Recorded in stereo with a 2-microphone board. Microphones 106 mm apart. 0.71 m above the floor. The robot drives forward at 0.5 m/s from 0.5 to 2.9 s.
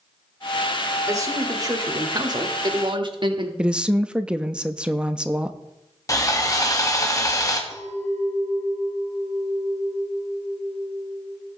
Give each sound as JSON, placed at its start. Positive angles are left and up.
{"t": 1.1, "sound": "a man speaking", "side_deg": -30, "distance_m": 1.9}
{"t": 3.6, "sound": "a woman speaking", "side_deg": -10, "distance_m": 0.5}
{"t": 6.1, "sound": "sawing", "side_deg": 30, "distance_m": 1.2}
{"t": 7.7, "sound": "a clink", "side_deg": 30, "distance_m": 2.0}